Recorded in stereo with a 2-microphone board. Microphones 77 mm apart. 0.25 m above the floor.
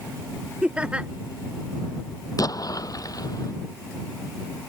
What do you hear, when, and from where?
0.6 s laughter: 15° right (ahead or behind)
2.4 s an explosion: 50° left (ahead or behind)